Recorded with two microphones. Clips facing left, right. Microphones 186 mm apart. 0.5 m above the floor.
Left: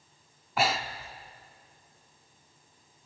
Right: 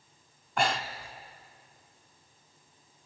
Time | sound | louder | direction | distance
0.6 | breathing | left 1 dB | 5° left (ahead or behind) | 1.0 m